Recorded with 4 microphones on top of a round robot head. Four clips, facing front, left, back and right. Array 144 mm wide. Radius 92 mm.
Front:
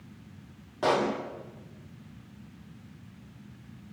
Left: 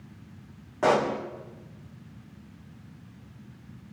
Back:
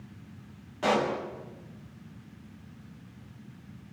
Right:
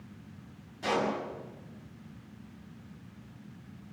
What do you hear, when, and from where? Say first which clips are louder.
0.8 s a pop: left 7 dB, front 1 dB; 70° left, 4 m